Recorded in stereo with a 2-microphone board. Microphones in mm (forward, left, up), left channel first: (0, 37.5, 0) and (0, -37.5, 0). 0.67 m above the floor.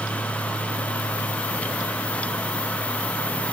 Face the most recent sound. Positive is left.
No sound to turn to.